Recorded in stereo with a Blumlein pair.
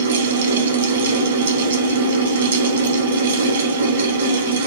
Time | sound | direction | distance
0.0 | a fan | 70° right | 1.3 m